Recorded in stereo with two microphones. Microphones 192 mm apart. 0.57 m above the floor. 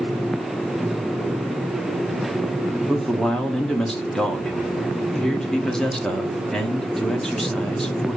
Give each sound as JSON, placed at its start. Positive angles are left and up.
{"t": 2.9, "sound": "a man speaking", "side_deg": 5, "distance_m": 1.1}